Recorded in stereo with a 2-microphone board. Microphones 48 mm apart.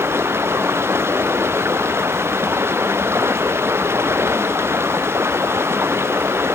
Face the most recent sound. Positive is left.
turn(degrees=-60)  # may be behind; listen again after turning